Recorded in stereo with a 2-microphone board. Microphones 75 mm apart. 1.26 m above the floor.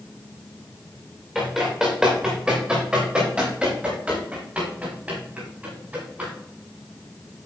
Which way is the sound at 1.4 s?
10° right (ahead or behind).